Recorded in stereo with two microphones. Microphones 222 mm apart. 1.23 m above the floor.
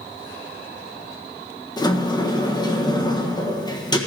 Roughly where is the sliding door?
Centre.